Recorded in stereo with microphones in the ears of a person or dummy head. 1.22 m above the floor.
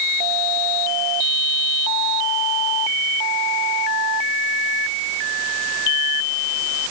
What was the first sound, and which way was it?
Only background noise.